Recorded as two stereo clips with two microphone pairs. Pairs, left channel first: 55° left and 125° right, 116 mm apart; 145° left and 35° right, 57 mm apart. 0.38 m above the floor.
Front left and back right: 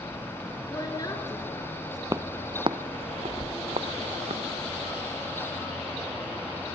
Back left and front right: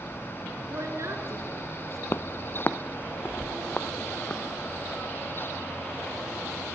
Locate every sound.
0.7 s a woman speaking: straight ahead, 4.5 m
2.1 s footsteps: 175° left, 0.6 m; by 4.4 s 150° right, 2 m